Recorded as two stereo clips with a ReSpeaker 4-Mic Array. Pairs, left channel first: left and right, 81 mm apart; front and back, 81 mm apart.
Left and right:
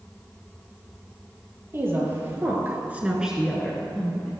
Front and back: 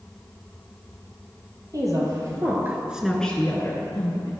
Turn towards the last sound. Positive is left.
turn(degrees=20)